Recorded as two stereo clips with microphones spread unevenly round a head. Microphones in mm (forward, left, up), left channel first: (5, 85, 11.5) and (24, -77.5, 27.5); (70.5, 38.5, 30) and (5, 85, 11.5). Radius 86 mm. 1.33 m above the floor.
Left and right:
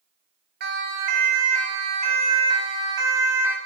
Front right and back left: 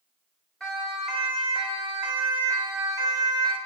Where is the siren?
125° right, 6 m; by 3.6 s 160° right, 5 m.